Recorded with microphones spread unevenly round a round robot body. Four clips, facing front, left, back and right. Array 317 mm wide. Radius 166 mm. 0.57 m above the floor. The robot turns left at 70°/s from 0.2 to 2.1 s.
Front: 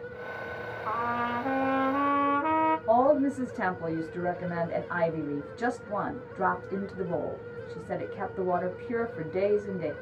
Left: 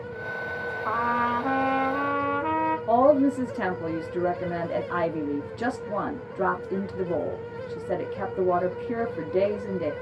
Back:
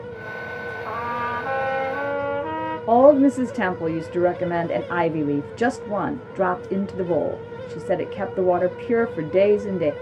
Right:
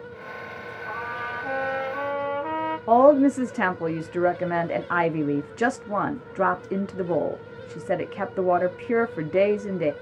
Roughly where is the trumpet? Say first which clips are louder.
Left 8 dB, back 2 dB; behind left.